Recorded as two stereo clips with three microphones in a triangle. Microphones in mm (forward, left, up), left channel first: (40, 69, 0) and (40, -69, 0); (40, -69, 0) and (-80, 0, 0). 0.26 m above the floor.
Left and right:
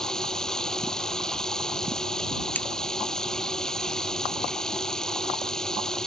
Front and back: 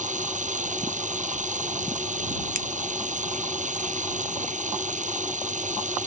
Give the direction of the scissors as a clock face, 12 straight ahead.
6 o'clock.